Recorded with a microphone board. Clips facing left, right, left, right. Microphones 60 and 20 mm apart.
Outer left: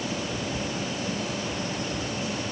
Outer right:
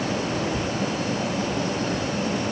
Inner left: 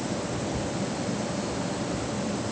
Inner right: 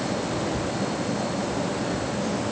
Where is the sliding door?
No sliding door in this recording.